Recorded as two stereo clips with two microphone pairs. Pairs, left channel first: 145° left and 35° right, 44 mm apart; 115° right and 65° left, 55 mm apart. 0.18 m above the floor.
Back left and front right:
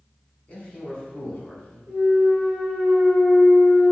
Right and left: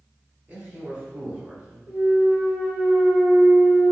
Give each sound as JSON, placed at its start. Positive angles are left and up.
{"t": 0.5, "sound": "a man speaking", "azimuth_deg": 110, "distance_m": 1.4}
{"t": 1.9, "sound": "a clunk", "azimuth_deg": 115, "distance_m": 1.5}